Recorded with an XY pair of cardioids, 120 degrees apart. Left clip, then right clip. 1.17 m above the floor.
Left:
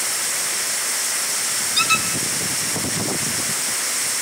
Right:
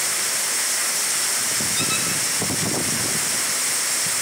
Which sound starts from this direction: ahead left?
A squeak, at 1.8 s.